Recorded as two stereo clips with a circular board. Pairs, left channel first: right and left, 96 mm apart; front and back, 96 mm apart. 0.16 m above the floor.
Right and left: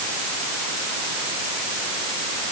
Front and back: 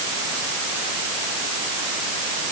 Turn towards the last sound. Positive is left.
No sound to turn to.